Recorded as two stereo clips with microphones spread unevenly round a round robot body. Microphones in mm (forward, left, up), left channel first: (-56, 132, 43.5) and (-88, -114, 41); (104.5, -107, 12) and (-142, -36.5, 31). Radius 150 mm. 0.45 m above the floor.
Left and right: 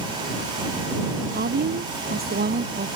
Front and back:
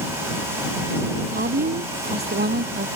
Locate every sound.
1.3 s a woman speaking: 145° right